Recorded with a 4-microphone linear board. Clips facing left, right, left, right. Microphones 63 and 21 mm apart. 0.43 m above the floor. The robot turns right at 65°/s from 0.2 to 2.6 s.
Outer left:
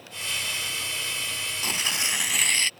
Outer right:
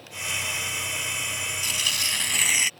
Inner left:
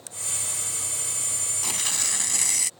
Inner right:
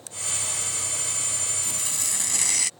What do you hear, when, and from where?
1.6 s tearing paper: 130° left; by 2.7 s 165° right